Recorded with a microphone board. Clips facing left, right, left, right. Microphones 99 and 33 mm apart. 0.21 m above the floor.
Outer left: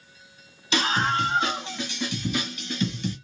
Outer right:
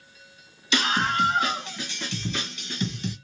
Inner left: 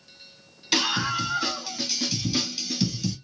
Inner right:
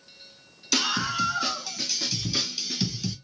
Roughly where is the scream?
Left.